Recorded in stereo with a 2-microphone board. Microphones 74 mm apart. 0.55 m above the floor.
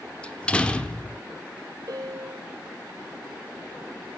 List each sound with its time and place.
0.2 s a door slam: 15° left (ahead or behind), 1.1 m
1.9 s a piano: 60° right (ahead or behind), 1.2 m